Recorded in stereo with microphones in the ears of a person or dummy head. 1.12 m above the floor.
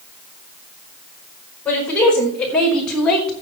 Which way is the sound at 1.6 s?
15° left (ahead or behind).